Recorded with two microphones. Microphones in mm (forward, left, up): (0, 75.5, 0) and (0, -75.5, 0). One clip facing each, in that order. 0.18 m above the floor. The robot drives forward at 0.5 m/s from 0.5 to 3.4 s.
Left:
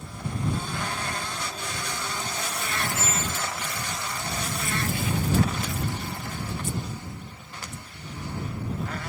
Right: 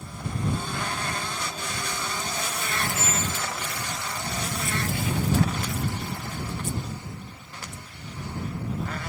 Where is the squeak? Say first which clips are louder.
Even; 30° right (ahead or behind); by 3.9 s 25° right (ahead or behind).